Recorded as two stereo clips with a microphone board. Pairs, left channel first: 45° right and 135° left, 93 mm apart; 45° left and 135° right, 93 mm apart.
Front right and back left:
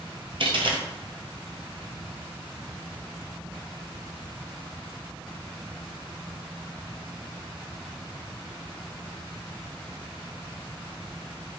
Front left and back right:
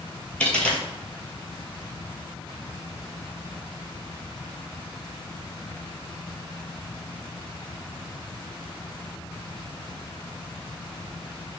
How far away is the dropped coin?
About 0.8 m.